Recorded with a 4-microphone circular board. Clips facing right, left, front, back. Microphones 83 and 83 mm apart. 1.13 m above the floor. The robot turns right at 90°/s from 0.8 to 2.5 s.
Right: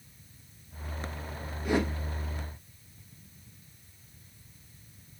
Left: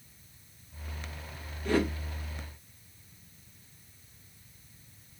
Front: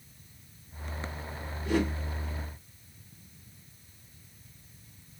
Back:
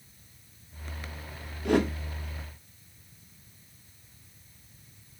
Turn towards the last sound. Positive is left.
turn(degrees=-95)